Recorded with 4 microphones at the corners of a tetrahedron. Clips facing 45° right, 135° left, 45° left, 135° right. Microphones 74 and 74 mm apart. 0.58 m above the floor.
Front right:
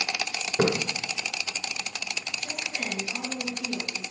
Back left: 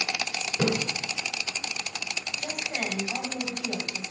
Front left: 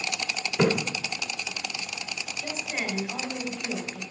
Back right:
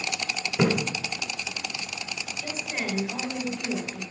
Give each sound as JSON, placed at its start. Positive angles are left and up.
{"t": 0.6, "sound": "a splash", "azimuth_deg": -55, "distance_m": 1.1}
{"t": 2.4, "sound": "a woman speaking", "azimuth_deg": 135, "distance_m": 3.0}